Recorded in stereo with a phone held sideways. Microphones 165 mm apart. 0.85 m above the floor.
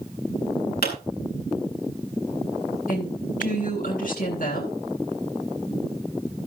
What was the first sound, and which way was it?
A pop, 65° left (ahead or behind).